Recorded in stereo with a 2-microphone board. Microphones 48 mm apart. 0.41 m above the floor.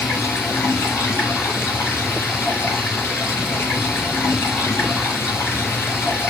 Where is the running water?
65° left (ahead or behind), 2.5 m.